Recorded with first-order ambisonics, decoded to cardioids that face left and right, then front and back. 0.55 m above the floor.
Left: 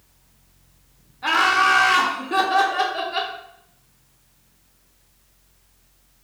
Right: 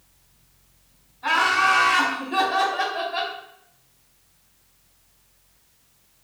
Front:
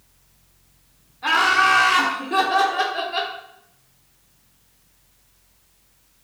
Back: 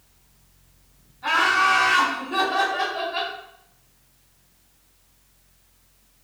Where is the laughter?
65° left, 1.0 m.